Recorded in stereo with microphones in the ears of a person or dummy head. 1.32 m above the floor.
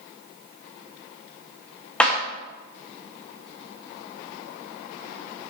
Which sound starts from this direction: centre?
A clap, at 2.0 s.